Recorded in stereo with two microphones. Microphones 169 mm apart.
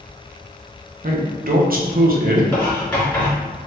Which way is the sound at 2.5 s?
15° left (ahead or behind).